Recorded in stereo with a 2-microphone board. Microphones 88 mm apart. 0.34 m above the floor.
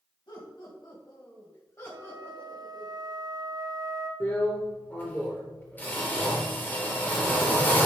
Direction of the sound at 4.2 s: 20° left (ahead or behind).